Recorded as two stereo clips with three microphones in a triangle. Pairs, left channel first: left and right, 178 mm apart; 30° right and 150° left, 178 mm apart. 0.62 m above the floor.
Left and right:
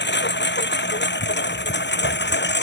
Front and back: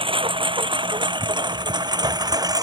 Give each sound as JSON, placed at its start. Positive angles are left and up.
{"t": 0.0, "sound": "a lawn mower", "azimuth_deg": 90}